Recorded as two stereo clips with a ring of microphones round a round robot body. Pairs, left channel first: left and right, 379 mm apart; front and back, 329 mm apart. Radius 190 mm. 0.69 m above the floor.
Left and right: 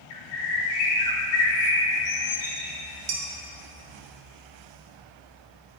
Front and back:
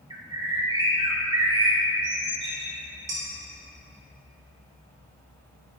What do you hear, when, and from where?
0.1 s a bird: 105° left, 1.6 m
3.1 s dishes clattering: 120° right, 1.4 m